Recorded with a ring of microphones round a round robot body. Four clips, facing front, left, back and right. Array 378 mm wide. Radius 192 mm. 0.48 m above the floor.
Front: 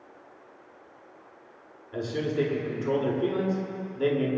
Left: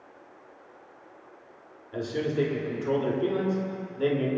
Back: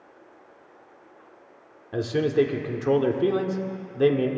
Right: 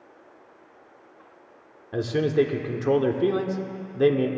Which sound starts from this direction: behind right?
A man speaking, at 1.9 s.